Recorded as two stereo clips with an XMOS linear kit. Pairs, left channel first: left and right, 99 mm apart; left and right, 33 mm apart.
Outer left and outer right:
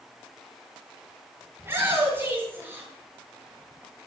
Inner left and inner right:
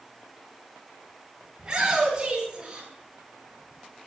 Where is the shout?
25° right (ahead or behind), 9 m.